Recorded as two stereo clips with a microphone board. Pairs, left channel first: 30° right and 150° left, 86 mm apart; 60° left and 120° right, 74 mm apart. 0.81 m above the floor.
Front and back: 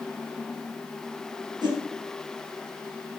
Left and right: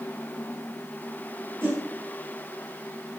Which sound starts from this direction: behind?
A whoosh, at 1.6 s.